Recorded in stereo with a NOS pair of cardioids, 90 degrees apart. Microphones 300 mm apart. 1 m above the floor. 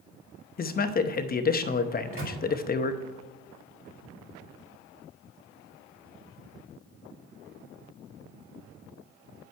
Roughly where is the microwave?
Ahead right.